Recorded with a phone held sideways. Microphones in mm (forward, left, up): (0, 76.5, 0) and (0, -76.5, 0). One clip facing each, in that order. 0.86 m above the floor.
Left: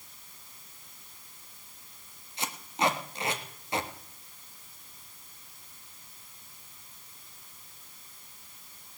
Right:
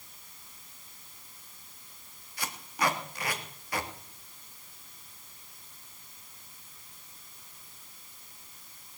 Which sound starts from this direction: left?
Tape being pulled, at 2.4 s.